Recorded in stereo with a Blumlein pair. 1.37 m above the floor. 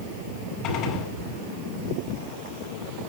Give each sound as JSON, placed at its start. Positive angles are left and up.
{"t": 0.6, "sound": "a gunshot", "azimuth_deg": 35, "distance_m": 5.5}